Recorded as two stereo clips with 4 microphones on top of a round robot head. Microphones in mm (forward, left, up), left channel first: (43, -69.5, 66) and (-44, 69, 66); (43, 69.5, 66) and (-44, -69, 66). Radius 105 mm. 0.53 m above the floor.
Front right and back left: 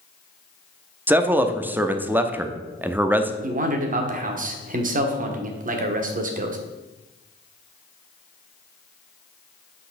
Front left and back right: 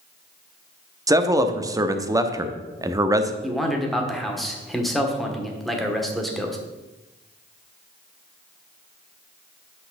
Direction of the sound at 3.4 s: 145° left.